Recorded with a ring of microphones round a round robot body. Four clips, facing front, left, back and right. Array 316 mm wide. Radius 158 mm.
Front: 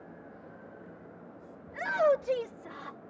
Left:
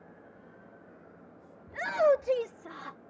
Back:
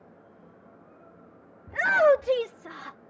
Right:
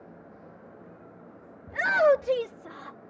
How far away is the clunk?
No clunk in this recording.